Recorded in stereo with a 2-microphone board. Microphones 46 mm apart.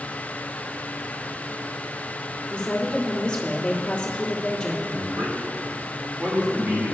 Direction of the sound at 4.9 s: 45° right (ahead or behind).